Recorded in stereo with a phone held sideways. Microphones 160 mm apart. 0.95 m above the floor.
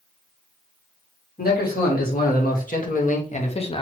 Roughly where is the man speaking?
Left.